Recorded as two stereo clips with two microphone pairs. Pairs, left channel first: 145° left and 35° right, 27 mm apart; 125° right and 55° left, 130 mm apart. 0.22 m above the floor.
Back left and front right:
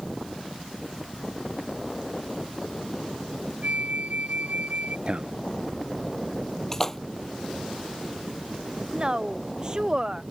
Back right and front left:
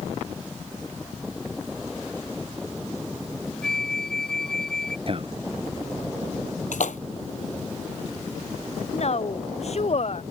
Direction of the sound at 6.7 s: 140° right.